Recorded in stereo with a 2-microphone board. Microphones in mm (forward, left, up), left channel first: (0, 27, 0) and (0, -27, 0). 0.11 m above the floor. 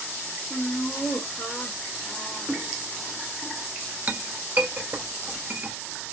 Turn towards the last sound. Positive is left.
turn(degrees=-40)  # may be behind; listen again after turning